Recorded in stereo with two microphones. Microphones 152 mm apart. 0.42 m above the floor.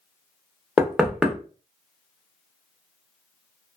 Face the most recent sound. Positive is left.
turn(degrees=-5)  # may be behind; listen again after turning